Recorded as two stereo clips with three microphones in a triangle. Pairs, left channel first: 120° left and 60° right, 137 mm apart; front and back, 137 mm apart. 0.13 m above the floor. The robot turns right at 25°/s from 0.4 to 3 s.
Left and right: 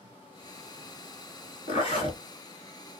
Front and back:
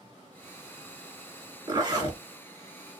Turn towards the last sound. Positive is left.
turn(degrees=170)